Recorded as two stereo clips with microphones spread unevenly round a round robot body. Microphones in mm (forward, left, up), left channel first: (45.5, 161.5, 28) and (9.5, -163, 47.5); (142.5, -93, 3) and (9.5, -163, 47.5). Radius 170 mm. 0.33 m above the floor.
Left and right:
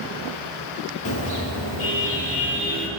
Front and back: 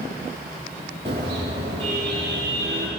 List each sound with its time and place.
1.1 s a car horn: 135° left, 5 m; by 2.9 s 150° left, 4 m